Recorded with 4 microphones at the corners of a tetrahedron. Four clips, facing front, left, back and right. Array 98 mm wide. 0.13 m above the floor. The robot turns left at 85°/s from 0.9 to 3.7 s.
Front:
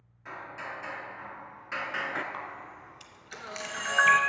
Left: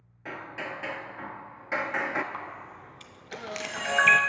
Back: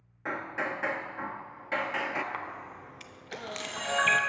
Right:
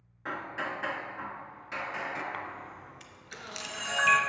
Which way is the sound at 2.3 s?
140° right.